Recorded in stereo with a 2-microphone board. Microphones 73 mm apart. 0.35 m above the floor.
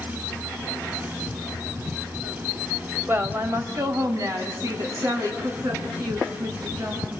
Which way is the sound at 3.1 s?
30° right (ahead or behind).